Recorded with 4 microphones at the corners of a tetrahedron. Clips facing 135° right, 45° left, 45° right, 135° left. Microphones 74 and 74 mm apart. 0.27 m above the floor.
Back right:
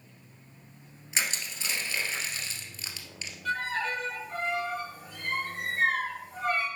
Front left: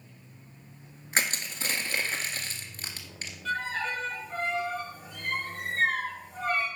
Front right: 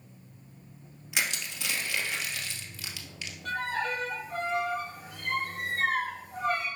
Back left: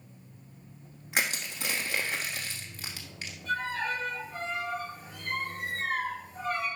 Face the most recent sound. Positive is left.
turn(degrees=-50)